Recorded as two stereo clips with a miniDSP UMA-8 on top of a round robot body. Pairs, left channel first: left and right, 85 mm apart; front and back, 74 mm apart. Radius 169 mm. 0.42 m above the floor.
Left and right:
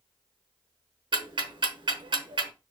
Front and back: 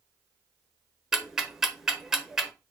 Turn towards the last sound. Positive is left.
turn(degrees=-95)